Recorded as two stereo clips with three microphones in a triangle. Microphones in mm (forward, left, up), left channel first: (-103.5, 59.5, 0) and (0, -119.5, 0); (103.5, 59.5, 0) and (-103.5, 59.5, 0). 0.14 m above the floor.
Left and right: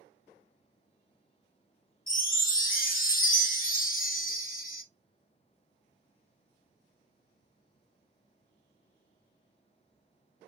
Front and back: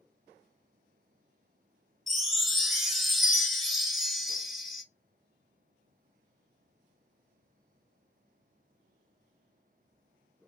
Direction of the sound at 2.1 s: 90° left.